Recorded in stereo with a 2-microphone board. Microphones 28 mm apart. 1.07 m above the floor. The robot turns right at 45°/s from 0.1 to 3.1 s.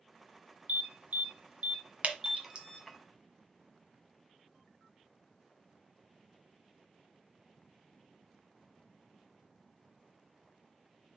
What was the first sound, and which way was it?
An alarm, 85° right.